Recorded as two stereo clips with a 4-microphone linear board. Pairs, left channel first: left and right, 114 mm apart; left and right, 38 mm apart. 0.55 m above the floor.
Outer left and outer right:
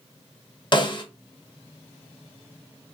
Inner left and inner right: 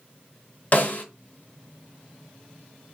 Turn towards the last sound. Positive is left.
turn(degrees=45)  # may be behind; listen again after turning